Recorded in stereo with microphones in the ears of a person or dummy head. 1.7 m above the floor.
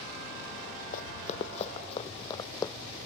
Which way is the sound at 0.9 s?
45° left (ahead or behind).